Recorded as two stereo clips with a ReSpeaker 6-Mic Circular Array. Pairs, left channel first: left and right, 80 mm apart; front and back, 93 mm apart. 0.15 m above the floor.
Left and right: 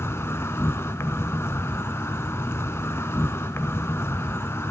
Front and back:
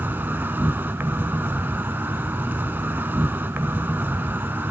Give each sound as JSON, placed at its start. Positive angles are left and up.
{"t": 0.0, "sound": "an insect", "azimuth_deg": 125, "distance_m": 0.7}